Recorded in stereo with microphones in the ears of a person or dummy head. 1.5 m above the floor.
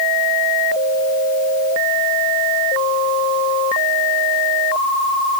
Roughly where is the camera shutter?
I don't hear a camera shutter.